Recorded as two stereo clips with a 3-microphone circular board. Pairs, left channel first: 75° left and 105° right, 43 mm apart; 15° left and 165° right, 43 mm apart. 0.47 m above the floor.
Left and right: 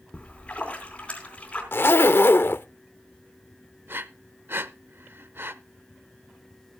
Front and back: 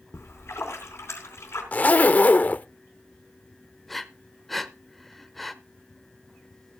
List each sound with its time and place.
0.1 s a splash: 10° left, 3.5 m
1.7 s a zipper: 60° left, 0.5 m
3.9 s breathing: 75° right, 0.6 m